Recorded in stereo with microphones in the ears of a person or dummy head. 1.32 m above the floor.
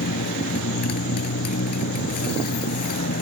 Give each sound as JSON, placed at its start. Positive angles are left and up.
{"t": 0.0, "sound": "a motorcycle", "side_deg": 50}